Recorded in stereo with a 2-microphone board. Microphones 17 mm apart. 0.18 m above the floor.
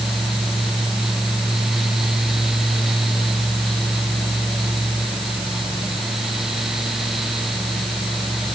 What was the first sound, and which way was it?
Only background noise.